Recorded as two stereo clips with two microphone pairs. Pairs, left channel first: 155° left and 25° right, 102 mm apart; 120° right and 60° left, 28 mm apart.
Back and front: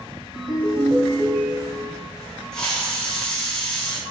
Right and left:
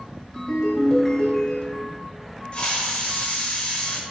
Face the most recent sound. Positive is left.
turn(degrees=-130)